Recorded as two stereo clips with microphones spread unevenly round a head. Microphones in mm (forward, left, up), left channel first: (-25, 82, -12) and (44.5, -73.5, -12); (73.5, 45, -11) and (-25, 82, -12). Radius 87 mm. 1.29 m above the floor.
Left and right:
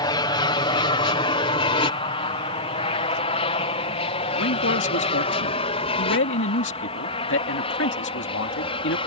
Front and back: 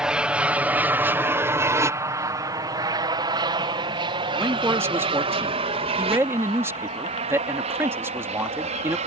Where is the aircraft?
90° left; by 9.1 s 175° left.